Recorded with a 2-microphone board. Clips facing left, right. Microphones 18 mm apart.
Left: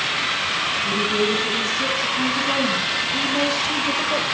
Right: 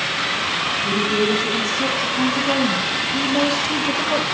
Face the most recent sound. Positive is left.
turn(degrees=-10)  # may be behind; listen again after turning